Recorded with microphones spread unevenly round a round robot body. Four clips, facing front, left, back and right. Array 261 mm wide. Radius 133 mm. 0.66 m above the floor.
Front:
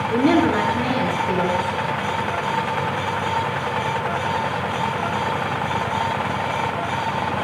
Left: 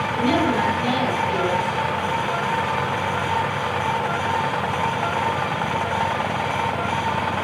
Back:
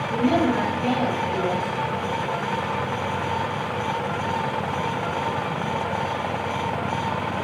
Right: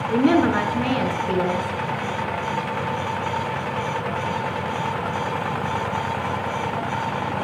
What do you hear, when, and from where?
0.1 s a woman speaking: 55° right, 7 m